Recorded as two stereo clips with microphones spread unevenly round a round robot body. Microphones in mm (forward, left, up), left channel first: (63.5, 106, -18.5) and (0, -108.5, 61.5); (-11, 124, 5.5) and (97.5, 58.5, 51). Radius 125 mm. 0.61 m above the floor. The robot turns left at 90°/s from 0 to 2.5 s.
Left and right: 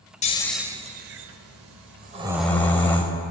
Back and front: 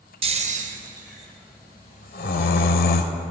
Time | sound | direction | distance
0.2 | snoring | 5° left | 0.7 m